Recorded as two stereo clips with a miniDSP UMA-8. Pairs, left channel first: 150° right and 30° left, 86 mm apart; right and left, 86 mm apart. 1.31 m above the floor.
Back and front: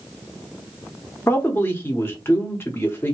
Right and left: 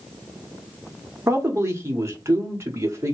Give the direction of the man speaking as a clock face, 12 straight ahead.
7 o'clock.